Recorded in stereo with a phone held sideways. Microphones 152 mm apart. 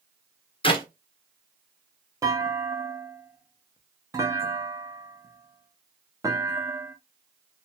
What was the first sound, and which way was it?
A clap, 35° left (ahead or behind).